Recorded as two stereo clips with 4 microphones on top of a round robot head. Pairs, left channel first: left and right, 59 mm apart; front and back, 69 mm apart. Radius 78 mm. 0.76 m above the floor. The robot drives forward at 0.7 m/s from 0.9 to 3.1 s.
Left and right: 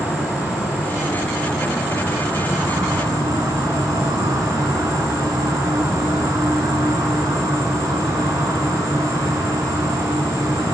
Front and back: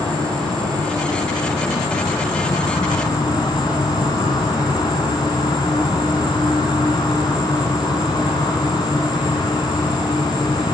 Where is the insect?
15° right, 2.5 m; by 10.8 s 40° right, 1.1 m.